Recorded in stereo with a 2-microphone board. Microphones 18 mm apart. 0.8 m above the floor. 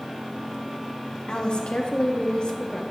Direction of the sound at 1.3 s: 55° left (ahead or behind).